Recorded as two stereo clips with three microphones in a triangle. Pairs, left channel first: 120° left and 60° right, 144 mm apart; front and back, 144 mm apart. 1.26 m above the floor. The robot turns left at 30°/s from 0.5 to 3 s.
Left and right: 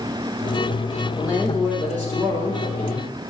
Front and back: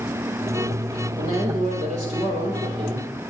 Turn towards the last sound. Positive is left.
turn(degrees=125)